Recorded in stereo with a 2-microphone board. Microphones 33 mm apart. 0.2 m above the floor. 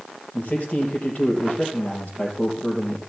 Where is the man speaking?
40° left (ahead or behind), 4 m.